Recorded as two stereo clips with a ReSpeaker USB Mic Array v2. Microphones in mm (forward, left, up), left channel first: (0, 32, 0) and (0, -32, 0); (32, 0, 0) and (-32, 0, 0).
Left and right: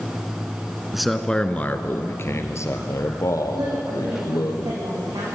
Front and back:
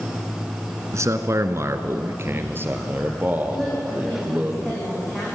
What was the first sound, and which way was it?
A man speaking, 175° right.